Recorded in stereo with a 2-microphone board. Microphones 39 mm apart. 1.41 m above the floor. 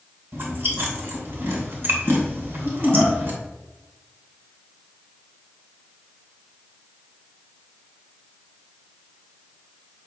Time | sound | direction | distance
0.3 | chewing | 65° right (ahead or behind) | 2.5 m